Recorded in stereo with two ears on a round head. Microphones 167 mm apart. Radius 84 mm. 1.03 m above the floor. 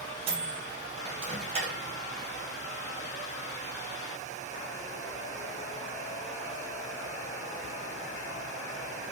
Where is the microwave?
35° right (ahead or behind), 0.8 m.